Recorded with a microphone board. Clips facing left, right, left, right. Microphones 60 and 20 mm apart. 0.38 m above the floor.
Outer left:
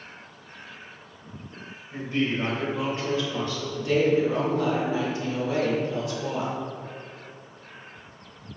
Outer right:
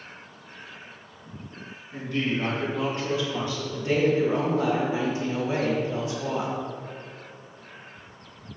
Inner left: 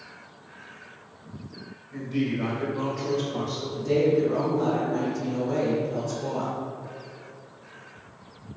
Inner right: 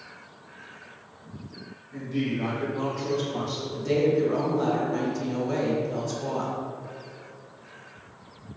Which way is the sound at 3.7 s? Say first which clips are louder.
Outer left 1 dB, inner left 1 dB; 25° right (ahead or behind).